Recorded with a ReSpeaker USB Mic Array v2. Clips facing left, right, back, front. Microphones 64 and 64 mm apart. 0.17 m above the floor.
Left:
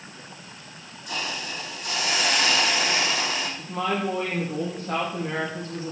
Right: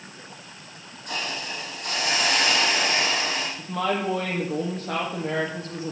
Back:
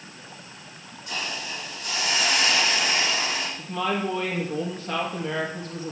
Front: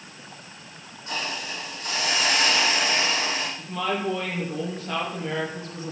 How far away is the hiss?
About 7 m.